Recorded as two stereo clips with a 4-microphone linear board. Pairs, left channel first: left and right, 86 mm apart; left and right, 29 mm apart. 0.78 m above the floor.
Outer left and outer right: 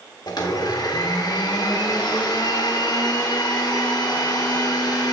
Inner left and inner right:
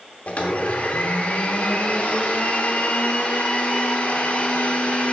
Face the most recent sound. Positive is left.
turn(degrees=50)  # may be behind; listen again after turning